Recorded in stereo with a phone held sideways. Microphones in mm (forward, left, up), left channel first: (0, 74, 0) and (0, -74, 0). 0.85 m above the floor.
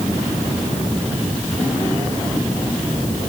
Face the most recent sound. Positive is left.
No sound to turn to.